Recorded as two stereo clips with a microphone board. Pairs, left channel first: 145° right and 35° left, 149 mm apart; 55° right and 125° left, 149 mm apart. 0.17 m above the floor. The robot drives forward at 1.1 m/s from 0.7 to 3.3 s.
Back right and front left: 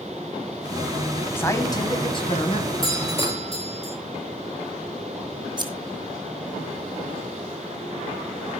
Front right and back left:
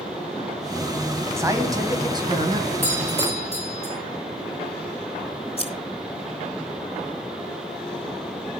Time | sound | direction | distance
1.4 | a man speaking | 165° left | 1.7 m
2.8 | a doorbell | 160° left | 4 m
5.6 | scissors | 20° right | 2.5 m